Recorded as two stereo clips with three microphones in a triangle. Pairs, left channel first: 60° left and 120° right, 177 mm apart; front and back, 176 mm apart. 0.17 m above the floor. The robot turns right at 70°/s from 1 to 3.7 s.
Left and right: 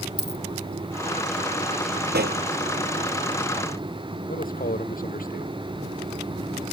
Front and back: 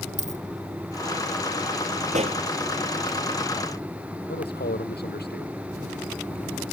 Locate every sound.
0.2 s a dropped coin: 135° right
2.1 s a pop: 140° right; by 2.4 s 120° right
4.3 s a man speaking: 25° left